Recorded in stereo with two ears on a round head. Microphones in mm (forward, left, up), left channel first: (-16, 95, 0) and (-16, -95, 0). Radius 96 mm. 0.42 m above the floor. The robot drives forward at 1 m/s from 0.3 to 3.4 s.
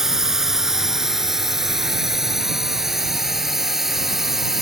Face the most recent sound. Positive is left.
turn(degrees=0)  # may be behind; listen again after turning